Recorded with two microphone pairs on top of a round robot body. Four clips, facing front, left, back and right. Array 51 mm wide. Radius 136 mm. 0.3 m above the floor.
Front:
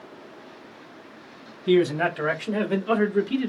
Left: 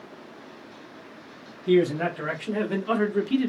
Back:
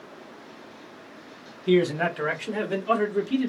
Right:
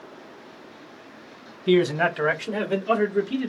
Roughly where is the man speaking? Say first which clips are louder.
Right 2 dB, front 1 dB; right.